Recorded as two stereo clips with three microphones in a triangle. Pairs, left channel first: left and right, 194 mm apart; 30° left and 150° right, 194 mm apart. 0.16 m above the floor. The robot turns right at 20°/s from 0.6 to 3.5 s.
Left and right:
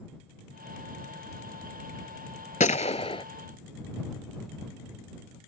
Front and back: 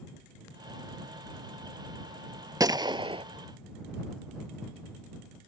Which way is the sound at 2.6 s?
140° left.